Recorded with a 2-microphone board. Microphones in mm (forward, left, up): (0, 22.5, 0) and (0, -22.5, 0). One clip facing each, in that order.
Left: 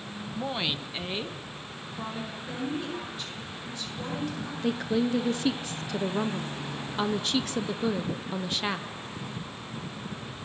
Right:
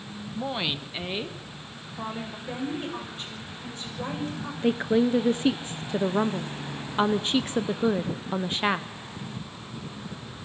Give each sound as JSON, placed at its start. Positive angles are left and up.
{"t": 0.3, "sound": "a woman speaking", "side_deg": -5, "distance_m": 0.8}
{"t": 2.5, "sound": "a woman speaking", "side_deg": -30, "distance_m": 7.0}
{"t": 4.6, "sound": "a woman speaking", "side_deg": -25, "distance_m": 0.8}